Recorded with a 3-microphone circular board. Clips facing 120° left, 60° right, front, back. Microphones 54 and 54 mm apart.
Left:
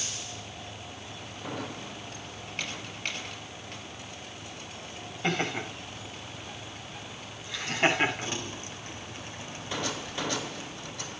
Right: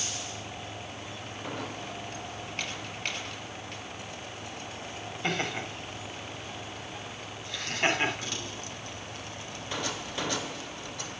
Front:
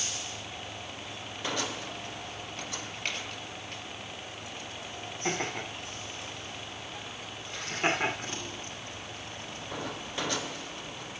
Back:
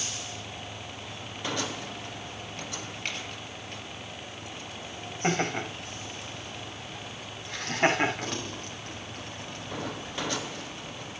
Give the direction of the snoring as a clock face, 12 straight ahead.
No snoring in this recording.